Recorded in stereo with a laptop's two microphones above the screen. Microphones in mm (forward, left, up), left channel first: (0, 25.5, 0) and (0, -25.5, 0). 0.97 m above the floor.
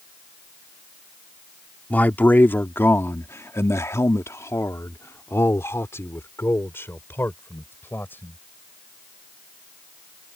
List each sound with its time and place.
1.9 s a man speaking: 35° left (ahead or behind); by 8.4 s 45° left (ahead or behind)